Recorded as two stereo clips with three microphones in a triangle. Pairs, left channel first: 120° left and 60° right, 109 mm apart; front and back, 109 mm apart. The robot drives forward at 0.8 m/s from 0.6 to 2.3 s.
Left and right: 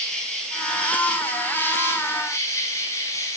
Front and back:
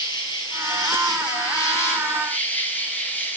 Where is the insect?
40° left, 3 m; by 3.4 s 70° left, 2 m.